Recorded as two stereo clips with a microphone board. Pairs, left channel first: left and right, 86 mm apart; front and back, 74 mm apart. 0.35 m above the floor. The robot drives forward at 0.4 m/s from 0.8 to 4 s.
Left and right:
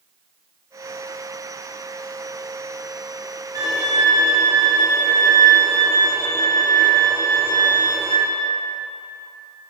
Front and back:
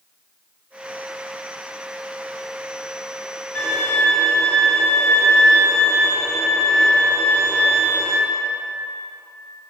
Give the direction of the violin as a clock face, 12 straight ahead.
2 o'clock.